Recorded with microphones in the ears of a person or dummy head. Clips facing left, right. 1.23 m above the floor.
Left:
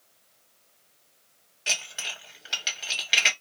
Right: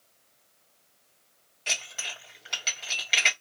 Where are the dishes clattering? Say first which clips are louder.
Left 1 dB; 10° left (ahead or behind), 1.7 m.